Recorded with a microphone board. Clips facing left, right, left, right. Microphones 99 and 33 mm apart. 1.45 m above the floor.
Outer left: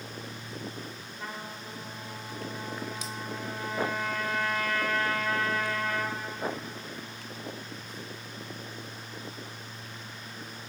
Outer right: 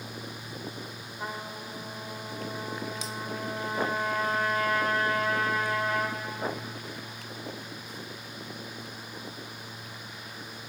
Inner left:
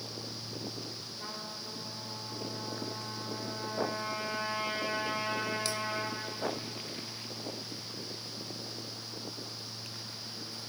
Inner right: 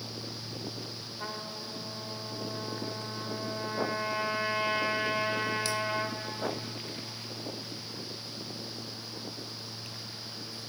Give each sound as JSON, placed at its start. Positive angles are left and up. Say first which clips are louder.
{"t": 1.2, "sound": "a trumpet", "louder": "outer right 3 dB, inner right 4 dB", "side_deg": -30, "distance_m": 2.5}